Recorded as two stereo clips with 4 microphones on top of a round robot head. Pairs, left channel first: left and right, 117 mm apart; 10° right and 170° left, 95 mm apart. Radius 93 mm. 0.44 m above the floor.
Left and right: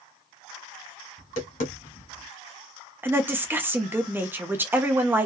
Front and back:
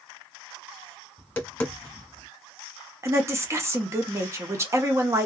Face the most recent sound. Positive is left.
turn(degrees=-150)